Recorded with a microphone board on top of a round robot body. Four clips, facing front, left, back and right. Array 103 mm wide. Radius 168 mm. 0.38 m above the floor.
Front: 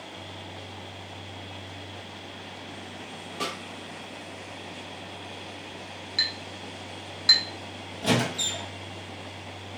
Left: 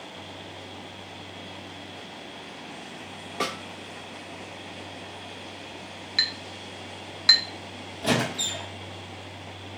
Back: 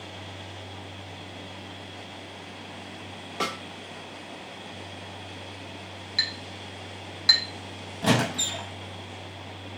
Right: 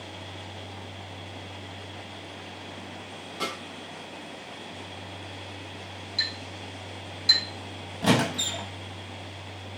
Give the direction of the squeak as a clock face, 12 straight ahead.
4 o'clock.